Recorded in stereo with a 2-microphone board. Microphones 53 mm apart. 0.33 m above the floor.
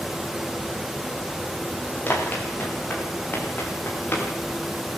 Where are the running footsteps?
40° left (ahead or behind), 9.5 m; by 4.3 s 45° left (ahead or behind), 10.5 m.